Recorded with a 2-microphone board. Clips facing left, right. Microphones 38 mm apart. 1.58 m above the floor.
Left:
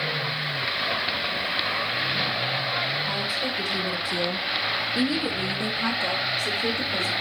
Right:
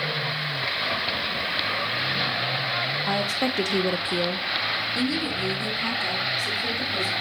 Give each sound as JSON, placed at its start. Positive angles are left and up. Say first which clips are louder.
{"t": 3.1, "sound": "a woman speaking", "louder": "right 2 dB", "side_deg": -75, "distance_m": 1.0}